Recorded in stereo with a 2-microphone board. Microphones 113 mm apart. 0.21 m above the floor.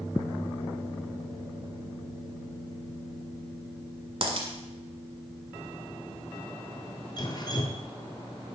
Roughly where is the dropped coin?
Right.